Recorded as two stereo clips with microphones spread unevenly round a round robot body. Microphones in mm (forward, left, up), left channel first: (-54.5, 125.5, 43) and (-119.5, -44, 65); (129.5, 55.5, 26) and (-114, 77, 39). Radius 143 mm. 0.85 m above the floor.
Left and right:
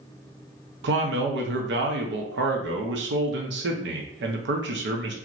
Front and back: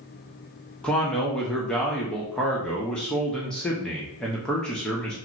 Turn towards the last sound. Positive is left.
turn(degrees=-90)